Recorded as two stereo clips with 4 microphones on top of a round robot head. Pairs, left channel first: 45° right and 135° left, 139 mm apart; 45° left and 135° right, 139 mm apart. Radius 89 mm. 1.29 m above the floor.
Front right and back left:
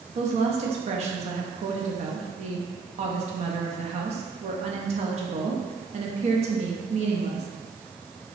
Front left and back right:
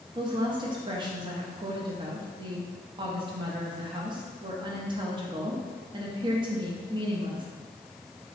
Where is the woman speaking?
170° left, 0.7 m.